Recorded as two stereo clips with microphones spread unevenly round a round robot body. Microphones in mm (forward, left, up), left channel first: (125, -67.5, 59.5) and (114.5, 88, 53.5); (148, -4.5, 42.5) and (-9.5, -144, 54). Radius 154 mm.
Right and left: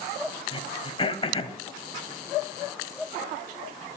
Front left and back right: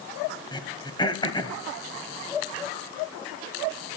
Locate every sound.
0.5 s throat clearing: 30° right, 1.5 m